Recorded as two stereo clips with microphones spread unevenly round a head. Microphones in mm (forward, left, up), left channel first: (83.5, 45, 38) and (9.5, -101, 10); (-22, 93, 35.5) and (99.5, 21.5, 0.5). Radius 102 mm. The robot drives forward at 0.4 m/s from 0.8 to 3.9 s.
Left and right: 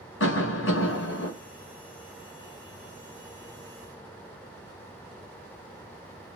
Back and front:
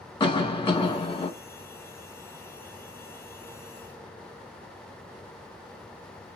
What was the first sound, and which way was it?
A cough, 80° left.